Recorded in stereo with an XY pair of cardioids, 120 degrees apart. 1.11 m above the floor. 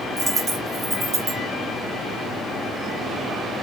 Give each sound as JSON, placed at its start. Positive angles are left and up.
{"t": 0.2, "sound": "a dropped coin", "azimuth_deg": -35, "distance_m": 2.5}